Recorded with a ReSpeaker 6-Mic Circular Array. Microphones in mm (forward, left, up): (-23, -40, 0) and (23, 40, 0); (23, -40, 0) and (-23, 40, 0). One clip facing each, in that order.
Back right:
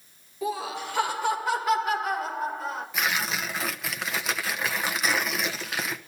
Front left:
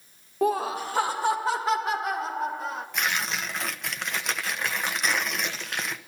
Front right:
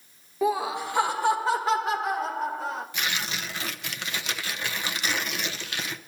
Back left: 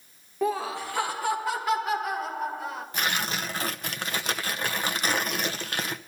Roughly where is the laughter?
Ahead left.